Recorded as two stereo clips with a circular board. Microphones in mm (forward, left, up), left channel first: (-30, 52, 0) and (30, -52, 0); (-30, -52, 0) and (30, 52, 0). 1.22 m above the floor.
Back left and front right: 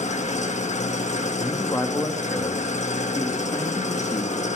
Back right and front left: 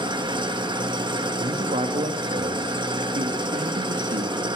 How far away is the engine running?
About 1.2 m.